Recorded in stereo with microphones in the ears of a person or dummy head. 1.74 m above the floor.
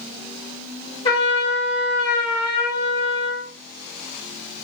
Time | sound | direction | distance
1.1 | a trumpet | 30° left (ahead or behind) | 1.0 m